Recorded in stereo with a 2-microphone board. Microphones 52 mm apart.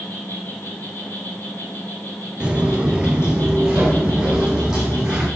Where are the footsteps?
20° right (ahead or behind), 1.1 m; by 5.3 s 10° right (ahead or behind), 3.5 m.